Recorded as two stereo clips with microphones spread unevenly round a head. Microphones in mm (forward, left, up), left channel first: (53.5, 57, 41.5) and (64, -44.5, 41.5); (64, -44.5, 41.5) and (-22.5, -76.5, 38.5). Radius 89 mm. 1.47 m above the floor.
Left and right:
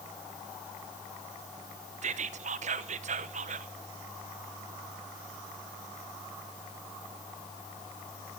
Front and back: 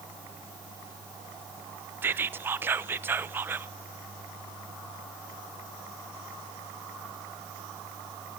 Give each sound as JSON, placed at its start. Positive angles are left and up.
{"t": 2.0, "sound": "whispering", "azimuth_deg": -90, "distance_m": 0.9}